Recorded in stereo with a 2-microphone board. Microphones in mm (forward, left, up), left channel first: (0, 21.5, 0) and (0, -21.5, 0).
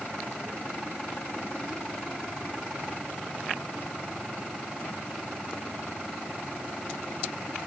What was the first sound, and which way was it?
Only background noise.